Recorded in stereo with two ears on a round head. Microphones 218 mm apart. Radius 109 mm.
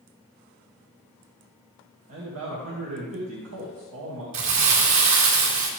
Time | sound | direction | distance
2.1 | a man speaking | 65° right (ahead or behind) | 2.5 m
4.3 | crumpling | 65° right (ahead or behind) | 4 m